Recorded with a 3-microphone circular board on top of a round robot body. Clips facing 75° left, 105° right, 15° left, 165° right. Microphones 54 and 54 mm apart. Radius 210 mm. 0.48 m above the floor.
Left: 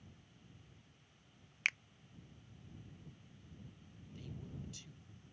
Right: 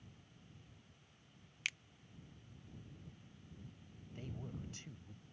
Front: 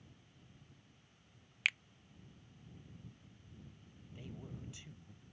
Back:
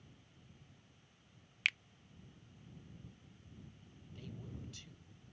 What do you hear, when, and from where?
1.6 s a finger snap: 100° left
4.1 s a man speaking: 55° right